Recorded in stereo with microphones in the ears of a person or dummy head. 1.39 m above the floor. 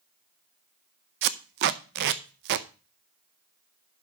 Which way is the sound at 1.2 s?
55° right (ahead or behind).